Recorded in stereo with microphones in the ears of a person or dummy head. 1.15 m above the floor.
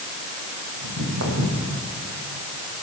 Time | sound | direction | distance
0.8 | footsteps | 70° right (ahead or behind) | 4 m